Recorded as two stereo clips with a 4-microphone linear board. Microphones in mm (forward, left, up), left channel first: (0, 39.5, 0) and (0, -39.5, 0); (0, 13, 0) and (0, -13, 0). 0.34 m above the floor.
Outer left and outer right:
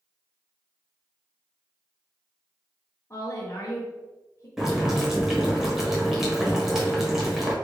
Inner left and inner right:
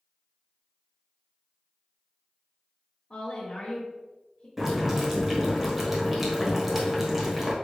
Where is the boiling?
5° right (ahead or behind), 1.3 m.